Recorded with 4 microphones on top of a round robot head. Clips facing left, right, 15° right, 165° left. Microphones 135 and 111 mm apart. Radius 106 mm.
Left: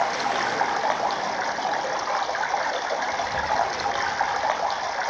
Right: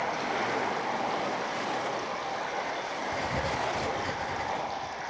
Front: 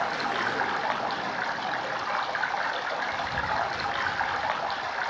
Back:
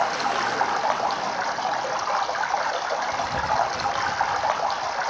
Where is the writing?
135° right, 3 m.